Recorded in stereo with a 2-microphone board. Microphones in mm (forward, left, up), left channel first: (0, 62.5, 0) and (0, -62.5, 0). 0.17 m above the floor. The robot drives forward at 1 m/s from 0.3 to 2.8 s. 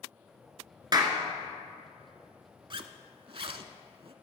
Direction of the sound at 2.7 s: 45° right (ahead or behind).